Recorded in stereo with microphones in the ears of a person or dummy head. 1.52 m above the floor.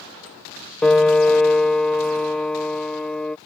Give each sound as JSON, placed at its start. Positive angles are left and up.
{"t": 0.8, "sound": "a piano", "side_deg": 5}